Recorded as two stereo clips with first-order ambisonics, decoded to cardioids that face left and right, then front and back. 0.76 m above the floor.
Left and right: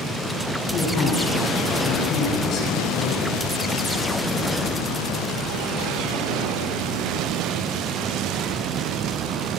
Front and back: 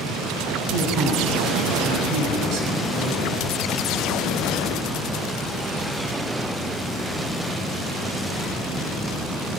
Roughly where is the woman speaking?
Behind left.